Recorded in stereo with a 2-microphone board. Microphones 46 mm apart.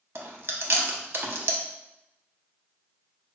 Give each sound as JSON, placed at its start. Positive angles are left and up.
{"t": 0.1, "sound": "chewing", "side_deg": -55, "distance_m": 0.5}